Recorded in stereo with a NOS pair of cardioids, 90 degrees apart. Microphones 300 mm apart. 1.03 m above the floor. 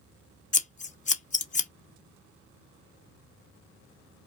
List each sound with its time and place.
0.5 s scissors: 25° left, 0.6 m